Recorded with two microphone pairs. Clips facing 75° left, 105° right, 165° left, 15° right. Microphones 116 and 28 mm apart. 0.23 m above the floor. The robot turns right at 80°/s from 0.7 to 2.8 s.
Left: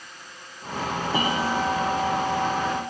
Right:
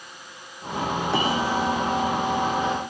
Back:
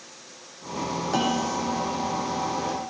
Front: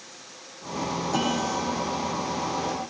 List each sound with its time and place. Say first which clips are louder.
1.1 s a bell: even, back 2 dB; 130° right, 8.5 m; by 2.8 s 5° left, 8.5 m